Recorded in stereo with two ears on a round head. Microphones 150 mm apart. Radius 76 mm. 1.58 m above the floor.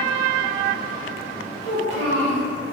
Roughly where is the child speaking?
Right.